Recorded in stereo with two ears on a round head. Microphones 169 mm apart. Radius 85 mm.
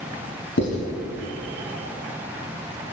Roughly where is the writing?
Left.